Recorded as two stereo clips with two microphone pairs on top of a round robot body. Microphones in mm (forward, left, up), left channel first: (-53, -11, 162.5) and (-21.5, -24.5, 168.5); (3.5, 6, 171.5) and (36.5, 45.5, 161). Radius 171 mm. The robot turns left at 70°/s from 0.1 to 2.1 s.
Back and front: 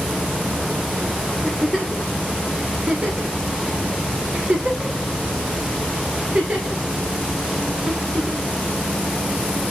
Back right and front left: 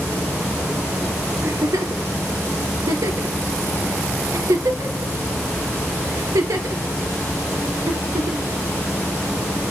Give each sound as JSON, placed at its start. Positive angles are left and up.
{"t": 1.4, "sound": "a giggle", "azimuth_deg": 85, "distance_m": 2.0}